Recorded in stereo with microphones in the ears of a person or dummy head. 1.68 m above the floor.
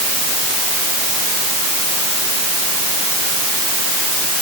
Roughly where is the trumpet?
No trumpet in this recording.